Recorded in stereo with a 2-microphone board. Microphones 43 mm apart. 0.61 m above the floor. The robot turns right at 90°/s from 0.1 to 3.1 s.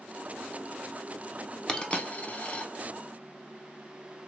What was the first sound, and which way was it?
A dropped coin, 15° left (ahead or behind).